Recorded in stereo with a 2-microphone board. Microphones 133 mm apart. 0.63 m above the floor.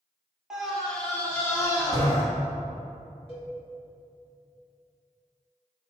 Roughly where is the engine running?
I don't hear an engine running.